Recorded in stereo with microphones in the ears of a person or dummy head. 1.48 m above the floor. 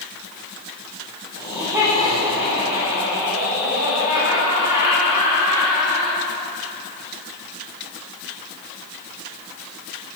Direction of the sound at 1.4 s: 15° right (ahead or behind).